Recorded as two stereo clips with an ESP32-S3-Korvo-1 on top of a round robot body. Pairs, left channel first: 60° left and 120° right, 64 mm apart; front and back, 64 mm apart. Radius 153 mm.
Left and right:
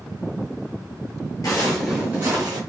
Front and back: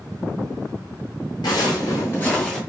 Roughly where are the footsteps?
Ahead.